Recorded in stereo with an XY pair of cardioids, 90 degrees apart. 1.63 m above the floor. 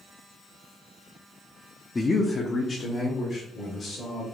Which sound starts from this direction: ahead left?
A man speaking, at 1.9 s.